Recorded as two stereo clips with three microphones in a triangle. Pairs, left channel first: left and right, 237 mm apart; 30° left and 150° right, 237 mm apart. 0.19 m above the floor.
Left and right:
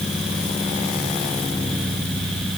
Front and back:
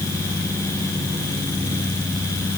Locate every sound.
Only background noise.